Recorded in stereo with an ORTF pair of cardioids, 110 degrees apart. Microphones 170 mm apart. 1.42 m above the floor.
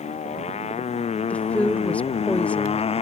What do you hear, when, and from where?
0.0 s a motorcycle: 40° left; by 3.0 s 35° left
1.3 s a woman speaking: 10° left